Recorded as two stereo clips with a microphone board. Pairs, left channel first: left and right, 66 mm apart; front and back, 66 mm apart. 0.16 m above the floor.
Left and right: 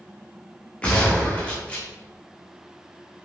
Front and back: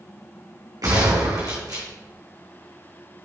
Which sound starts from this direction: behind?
A gunshot, at 0.8 s.